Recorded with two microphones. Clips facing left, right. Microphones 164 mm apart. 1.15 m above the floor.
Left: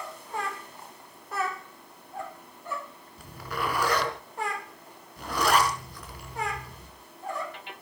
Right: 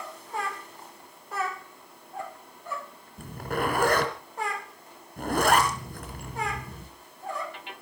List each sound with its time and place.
3.2 s a zipper: 50° right (ahead or behind), 3 m